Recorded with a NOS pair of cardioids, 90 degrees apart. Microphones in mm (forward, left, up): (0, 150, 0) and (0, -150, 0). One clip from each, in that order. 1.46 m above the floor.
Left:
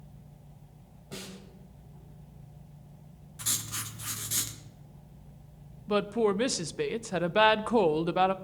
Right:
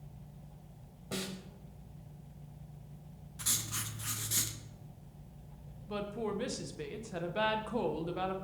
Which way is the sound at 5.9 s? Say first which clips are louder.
Left 11 dB; 55° left.